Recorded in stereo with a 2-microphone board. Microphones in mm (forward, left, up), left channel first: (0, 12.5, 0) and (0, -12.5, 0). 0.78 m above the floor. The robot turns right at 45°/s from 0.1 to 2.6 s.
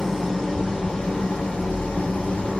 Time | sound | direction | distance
0.0 | an engine running | 10° left | 0.9 m